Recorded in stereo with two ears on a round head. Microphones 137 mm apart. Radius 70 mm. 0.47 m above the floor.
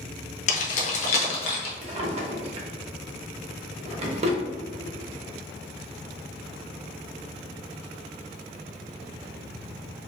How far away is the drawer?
About 0.7 m.